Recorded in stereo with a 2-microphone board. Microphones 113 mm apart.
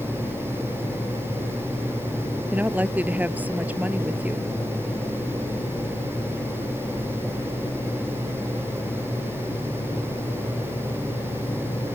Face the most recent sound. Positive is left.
turn(degrees=-15)  # may be behind; listen again after turning